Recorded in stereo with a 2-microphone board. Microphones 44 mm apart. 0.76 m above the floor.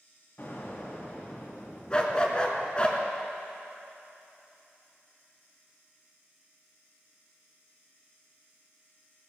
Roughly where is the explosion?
Left.